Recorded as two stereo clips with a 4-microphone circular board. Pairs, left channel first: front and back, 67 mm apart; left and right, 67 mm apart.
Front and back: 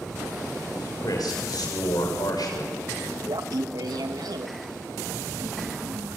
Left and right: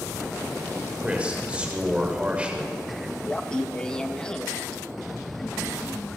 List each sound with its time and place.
1.0 s a man speaking: 15° right, 7 m
3.3 s laughter: 170° left, 2 m